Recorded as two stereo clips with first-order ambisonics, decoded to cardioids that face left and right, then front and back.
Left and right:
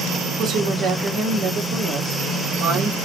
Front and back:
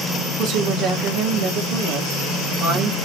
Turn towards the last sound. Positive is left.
turn(degrees=-145)